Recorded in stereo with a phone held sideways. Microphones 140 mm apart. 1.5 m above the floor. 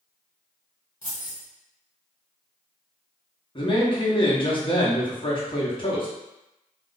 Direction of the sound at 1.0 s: 60° left (ahead or behind).